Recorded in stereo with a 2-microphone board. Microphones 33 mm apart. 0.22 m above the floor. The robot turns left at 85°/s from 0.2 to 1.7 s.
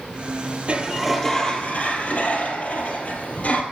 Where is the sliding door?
140° right, 1.3 m; by 3.6 s 130° left, 1.3 m.